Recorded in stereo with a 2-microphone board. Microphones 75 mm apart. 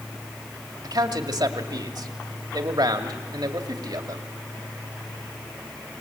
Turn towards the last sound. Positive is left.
turn(degrees=-70)  # may be behind; listen again after turning